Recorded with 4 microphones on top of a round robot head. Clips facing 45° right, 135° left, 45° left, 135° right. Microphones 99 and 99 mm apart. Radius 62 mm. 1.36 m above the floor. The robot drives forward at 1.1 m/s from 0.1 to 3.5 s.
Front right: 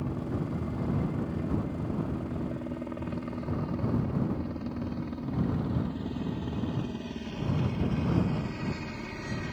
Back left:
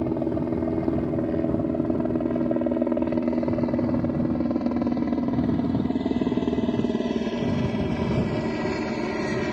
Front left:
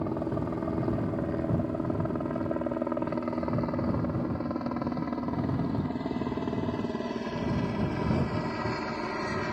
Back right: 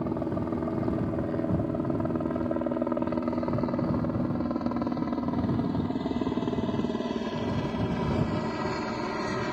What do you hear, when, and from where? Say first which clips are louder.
0.0 s a helicopter: back left 9 dB, back right 1 dB; 135° left; by 9.5 s 140° left